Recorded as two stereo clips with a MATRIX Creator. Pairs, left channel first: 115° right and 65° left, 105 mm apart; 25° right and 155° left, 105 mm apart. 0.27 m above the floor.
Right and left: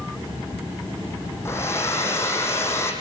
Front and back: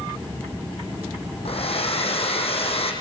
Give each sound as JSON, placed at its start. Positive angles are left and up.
{"t": 1.4, "sound": "a hair dryer", "azimuth_deg": -45, "distance_m": 6.0}